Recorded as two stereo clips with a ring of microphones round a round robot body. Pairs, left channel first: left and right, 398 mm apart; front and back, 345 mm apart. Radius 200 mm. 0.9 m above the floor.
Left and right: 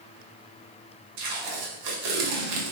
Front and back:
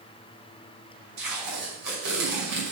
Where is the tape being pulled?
125° right, 2 m.